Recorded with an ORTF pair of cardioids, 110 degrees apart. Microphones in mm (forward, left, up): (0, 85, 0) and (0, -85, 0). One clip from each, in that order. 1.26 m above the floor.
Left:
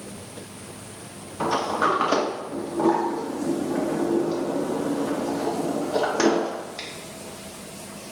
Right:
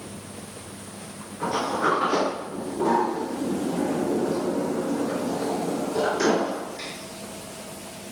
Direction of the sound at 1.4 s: 65° left.